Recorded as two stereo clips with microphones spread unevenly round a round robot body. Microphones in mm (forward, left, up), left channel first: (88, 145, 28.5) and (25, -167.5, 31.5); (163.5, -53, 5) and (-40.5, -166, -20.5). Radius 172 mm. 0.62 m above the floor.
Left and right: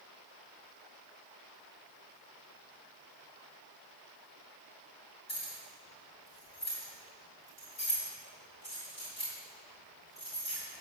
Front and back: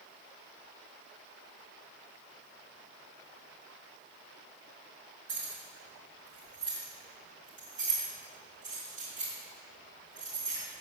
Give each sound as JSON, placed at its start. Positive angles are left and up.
{"t": 5.3, "sound": "keys jangling", "azimuth_deg": 150, "distance_m": 3.0}